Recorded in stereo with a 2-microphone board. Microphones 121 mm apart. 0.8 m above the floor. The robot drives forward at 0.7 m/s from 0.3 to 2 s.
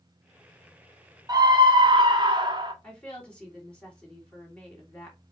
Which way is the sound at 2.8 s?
10° left (ahead or behind).